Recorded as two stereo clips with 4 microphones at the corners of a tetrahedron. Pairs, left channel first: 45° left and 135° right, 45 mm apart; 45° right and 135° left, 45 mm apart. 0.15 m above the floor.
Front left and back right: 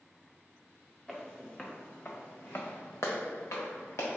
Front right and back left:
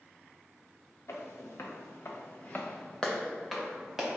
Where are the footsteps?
40° right, 1.2 m; by 4.2 s 55° left, 1.4 m.